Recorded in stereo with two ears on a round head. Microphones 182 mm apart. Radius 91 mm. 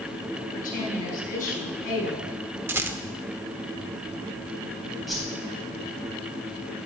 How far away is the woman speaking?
About 5.5 m.